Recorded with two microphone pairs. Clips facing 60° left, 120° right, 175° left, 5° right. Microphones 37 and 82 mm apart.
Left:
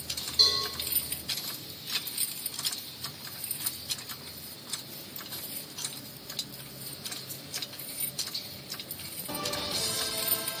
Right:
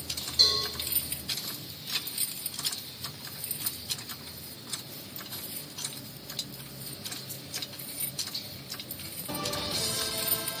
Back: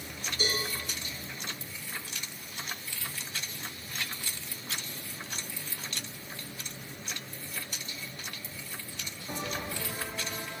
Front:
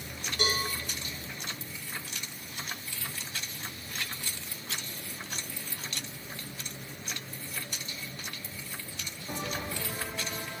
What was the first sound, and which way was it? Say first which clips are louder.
A cowbell: even, front 2 dB; 20° right.